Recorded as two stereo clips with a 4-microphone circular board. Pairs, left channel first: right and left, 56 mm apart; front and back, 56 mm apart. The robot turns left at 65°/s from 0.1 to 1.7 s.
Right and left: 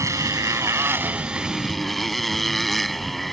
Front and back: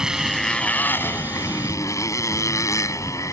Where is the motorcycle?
105° left; by 3.3 s straight ahead.